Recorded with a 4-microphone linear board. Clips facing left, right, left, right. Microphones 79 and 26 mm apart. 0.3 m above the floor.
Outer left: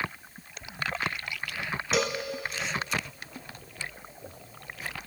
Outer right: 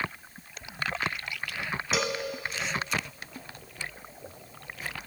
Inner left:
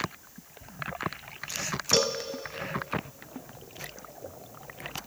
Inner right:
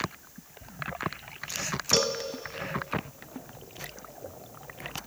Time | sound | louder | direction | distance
1.9 | a cowbell | outer left 2 dB, inner left 1 dB | centre (ahead or behind) | 0.6 m